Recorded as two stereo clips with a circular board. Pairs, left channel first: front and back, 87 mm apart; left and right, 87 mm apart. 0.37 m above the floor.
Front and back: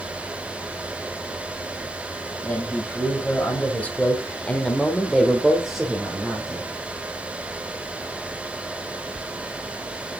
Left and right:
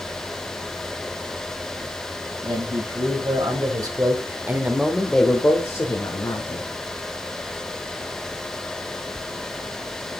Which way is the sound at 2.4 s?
70° right.